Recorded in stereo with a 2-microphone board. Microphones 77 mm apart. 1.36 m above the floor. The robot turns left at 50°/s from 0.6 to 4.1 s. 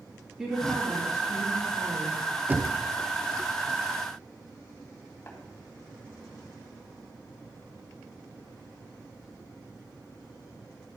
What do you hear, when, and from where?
0.4 s a woman speaking: 10° right, 3 m; by 2.2 s 90° right, 3 m
2.5 s knocking: 25° right (ahead or behind), 0.7 m; by 2.8 s 35° right (ahead or behind), 0.7 m
5.3 s tapping: 30° left (ahead or behind), 3.5 m